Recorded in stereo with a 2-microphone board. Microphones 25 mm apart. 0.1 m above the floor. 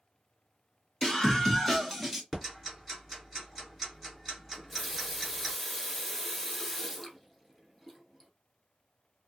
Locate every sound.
1.0 s a scream: 25° left (ahead or behind), 1.7 m; by 2.2 s centre (ahead or behind), 1.3 m
2.3 s ticking: 5° left (ahead or behind), 1.5 m
4.5 s a running tap: 10° left (ahead or behind), 1.0 m